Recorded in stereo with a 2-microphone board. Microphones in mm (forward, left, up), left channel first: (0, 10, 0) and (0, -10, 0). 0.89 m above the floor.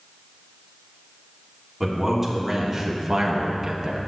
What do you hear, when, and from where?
1.8 s a man speaking: 5° right (ahead or behind), 2.5 m; by 4.0 s 35° right (ahead or behind), 1.0 m